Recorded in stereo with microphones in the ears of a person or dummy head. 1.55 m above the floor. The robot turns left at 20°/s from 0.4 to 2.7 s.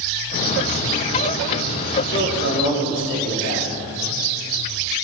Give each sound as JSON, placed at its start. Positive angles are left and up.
{"t": 2.1, "sound": "a man speaking", "side_deg": 50, "distance_m": 4.5}